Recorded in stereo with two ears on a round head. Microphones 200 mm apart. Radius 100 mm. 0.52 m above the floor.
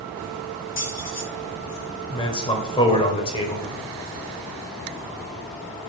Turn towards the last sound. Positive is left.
turn(degrees=20)  # may be behind; listen again after turning